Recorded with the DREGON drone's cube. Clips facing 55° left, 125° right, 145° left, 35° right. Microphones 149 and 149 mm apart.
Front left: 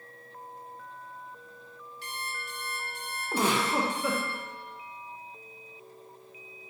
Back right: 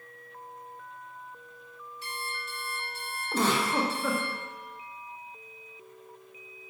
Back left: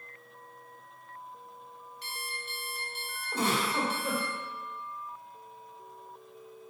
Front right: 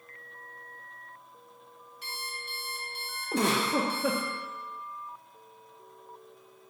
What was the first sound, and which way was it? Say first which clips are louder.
An alarm clock: back right 1 dB, front right 1 dB; 50° left.